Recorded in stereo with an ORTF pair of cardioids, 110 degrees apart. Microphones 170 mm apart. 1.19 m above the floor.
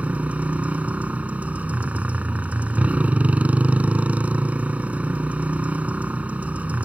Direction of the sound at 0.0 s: 10° right.